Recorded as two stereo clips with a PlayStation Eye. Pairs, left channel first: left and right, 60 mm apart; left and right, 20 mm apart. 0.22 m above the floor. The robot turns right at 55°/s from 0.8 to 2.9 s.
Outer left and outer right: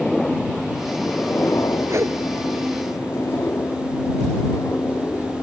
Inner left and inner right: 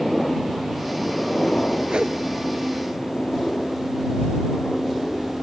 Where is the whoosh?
50° right (ahead or behind); by 2.2 s 65° right (ahead or behind).